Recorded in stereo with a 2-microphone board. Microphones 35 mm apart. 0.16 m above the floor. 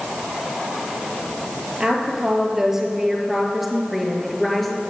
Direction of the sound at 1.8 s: 25° right (ahead or behind).